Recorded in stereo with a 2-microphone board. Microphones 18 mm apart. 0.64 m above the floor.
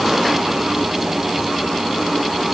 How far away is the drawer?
No drawer in this recording.